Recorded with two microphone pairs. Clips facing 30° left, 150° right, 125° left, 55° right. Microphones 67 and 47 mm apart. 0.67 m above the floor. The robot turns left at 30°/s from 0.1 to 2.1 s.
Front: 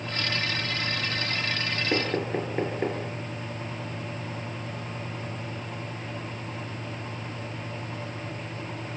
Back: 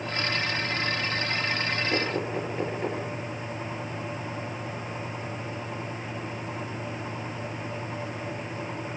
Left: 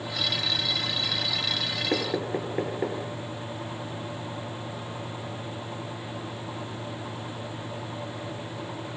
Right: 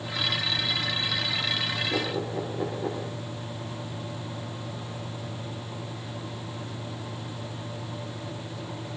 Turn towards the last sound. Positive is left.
turn(degrees=90)